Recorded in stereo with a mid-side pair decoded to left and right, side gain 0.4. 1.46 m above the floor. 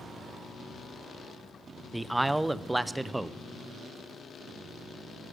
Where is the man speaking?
15° right, 0.6 m.